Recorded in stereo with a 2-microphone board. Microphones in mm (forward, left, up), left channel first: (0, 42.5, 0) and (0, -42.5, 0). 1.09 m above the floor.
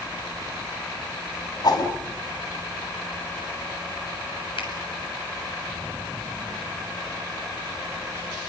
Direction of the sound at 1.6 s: 55° left (ahead or behind).